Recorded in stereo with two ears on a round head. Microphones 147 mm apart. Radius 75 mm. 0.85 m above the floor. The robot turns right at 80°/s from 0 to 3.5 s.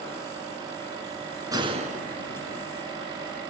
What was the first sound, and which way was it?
A gunshot, 155° right.